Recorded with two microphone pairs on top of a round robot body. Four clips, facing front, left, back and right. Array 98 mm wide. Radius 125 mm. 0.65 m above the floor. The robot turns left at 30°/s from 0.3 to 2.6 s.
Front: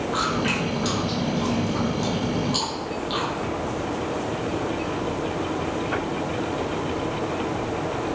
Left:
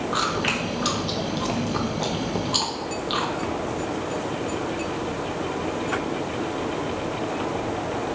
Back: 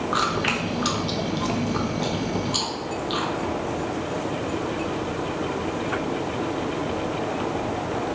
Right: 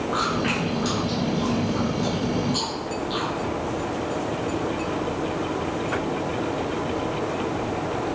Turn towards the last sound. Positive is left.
turn(degrees=90)